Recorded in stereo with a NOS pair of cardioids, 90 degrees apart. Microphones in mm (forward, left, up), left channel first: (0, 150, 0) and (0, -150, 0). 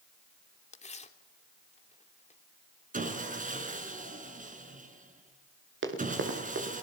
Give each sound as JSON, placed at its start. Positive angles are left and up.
{"t": 0.7, "sound": "tearing paper", "azimuth_deg": 20, "distance_m": 3.0}
{"t": 2.9, "sound": "sawing", "azimuth_deg": -25, "distance_m": 5.0}
{"t": 5.8, "sound": "running footsteps", "azimuth_deg": -35, "distance_m": 7.5}